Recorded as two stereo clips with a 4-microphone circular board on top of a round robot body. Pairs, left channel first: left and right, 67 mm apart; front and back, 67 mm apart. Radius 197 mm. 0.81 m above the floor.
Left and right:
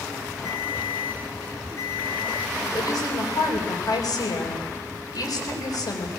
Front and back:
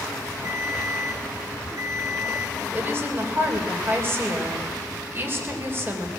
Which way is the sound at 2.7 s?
120° left.